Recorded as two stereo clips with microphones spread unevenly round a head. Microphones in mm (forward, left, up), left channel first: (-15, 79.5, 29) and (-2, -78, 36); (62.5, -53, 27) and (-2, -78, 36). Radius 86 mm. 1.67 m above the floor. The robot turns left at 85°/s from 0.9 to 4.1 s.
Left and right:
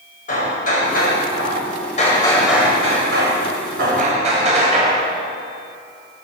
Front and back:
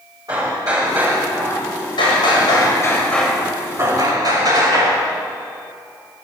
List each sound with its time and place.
0.3 s hammering: 140° left, 8.5 m; by 5.1 s 135° right, 8.5 m